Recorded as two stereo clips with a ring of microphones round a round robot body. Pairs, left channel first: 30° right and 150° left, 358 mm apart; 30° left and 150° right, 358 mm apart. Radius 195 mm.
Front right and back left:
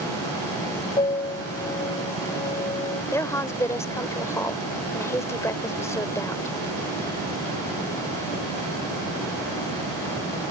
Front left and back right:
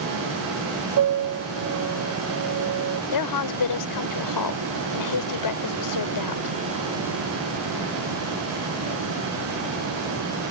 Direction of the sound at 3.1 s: 50° left.